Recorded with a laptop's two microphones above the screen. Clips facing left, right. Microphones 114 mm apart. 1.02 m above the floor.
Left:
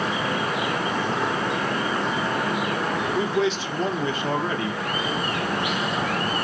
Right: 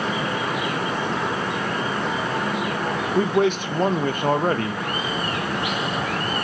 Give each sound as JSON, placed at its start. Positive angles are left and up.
{"t": 3.1, "sound": "a man speaking", "side_deg": -50, "distance_m": 0.8}